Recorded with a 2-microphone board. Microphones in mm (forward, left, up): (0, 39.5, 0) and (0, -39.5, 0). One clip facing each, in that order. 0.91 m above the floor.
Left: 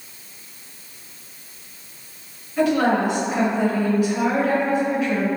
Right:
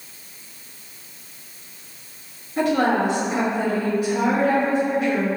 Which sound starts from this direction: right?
A woman speaking, at 2.6 s.